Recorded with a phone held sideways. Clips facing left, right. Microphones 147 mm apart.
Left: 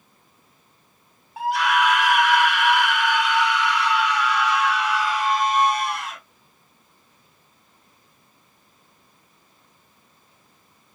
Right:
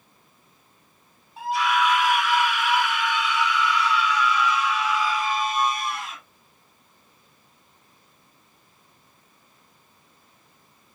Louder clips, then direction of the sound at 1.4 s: Left 2 dB; 70° left (ahead or behind).